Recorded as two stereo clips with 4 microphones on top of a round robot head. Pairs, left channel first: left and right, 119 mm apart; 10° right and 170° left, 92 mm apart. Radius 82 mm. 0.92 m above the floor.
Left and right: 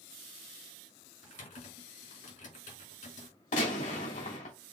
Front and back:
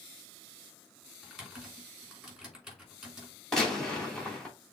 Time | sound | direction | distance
1.2 | typing on a keyboard | 85° left | 3 m
3.5 | a gunshot | 75° left | 3 m